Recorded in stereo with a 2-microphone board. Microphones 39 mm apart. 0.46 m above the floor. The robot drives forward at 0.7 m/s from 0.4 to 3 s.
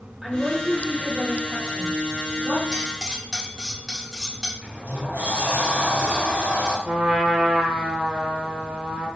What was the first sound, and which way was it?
A woman speaking, 5° right (ahead or behind).